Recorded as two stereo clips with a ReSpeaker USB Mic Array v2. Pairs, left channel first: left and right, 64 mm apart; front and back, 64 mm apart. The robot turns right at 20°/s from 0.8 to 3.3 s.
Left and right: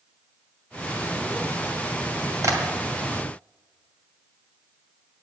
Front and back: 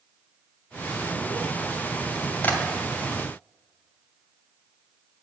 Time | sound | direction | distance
2.4 | tapping | 60° right | 1.8 m